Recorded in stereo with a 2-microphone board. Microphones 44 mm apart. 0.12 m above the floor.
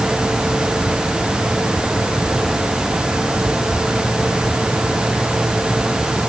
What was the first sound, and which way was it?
Only background noise.